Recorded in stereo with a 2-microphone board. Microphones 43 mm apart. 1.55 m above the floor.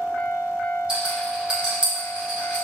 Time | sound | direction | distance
0.9 | a rattle | 25° right (ahead or behind) | 1.5 m